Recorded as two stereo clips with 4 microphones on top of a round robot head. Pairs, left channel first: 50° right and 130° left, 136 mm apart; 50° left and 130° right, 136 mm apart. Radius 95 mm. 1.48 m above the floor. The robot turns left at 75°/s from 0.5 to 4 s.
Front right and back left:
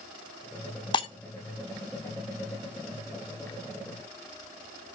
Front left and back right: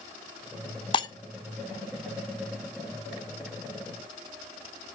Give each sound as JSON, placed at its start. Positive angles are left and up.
{"t": 0.9, "sound": "breaking glass", "azimuth_deg": 0, "distance_m": 0.8}